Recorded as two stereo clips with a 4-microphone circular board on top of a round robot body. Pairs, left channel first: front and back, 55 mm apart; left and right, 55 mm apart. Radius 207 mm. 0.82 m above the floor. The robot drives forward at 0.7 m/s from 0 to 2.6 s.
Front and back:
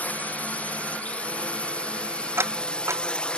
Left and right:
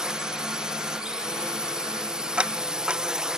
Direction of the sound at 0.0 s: 25° right.